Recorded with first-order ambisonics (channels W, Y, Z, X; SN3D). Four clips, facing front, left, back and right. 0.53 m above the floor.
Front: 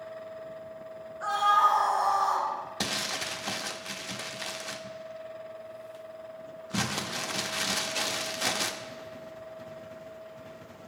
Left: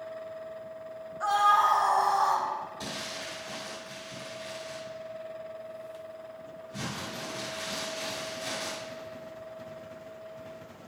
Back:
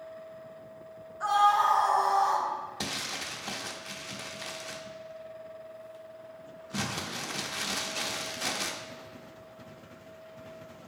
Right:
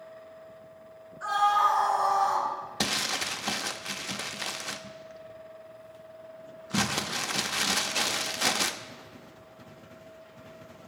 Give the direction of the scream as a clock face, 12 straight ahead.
8 o'clock.